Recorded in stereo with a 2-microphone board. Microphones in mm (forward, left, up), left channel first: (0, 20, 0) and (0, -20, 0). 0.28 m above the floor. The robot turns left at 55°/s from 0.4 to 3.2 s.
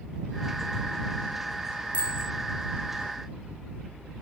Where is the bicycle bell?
30° right (ahead or behind); by 2.3 s 10° right (ahead or behind).